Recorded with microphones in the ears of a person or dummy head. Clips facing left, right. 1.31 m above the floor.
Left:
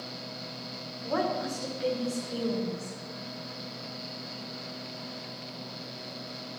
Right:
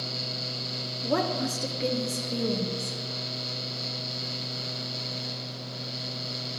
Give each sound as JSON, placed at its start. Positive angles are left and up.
{"t": 1.0, "sound": "a woman speaking", "side_deg": -40, "distance_m": 1.0}